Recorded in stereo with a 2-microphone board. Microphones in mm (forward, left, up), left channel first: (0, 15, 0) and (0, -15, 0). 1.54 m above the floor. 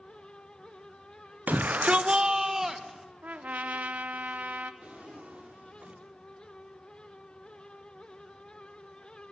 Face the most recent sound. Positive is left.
turn(degrees=-55)  # may be behind; listen again after turning